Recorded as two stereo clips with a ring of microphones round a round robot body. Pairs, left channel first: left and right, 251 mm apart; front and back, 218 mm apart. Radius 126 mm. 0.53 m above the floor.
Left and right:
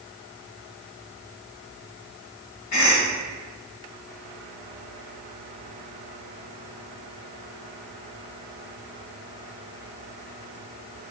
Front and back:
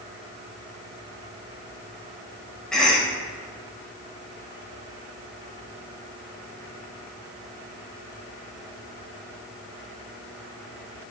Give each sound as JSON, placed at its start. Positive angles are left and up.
{"t": 2.7, "sound": "a cough", "azimuth_deg": 90, "distance_m": 2.0}